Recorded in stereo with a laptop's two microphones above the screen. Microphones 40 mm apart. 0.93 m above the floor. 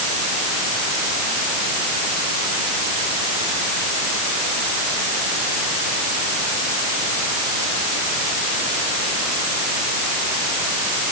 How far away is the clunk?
I don't hear a clunk.